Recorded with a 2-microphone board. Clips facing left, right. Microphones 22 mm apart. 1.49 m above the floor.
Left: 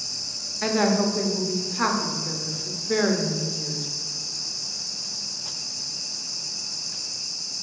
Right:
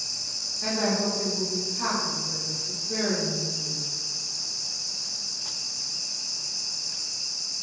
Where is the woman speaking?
75° left (ahead or behind), 0.7 m.